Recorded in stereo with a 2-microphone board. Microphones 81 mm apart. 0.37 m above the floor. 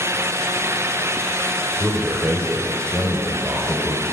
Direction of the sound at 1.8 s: 30° right (ahead or behind).